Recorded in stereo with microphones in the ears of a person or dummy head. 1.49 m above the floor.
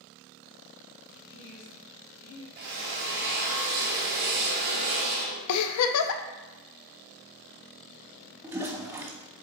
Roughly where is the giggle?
Left.